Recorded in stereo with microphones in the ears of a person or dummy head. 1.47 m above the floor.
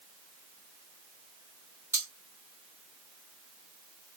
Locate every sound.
1.9 s cutlery clinking: 15° right (ahead or behind), 1.5 m